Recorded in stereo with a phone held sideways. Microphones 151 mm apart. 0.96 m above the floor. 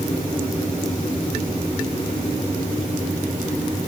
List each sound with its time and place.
Only background noise.